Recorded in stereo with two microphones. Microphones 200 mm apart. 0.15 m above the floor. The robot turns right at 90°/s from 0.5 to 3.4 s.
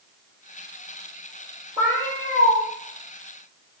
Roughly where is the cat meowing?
Behind right.